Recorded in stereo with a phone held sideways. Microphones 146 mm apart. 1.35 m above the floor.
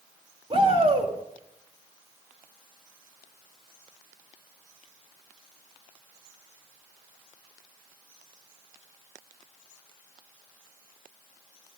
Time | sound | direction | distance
0.5 | a shout | 40° right (ahead or behind) | 3 m